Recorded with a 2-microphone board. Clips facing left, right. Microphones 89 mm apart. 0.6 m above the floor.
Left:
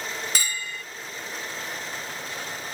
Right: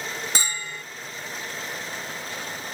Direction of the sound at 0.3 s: 30° right (ahead or behind).